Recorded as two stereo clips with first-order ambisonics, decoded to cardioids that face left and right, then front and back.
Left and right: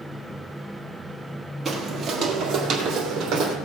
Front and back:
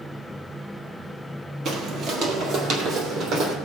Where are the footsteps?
155° right, 1.5 m; by 3.5 s 135° right, 2.5 m.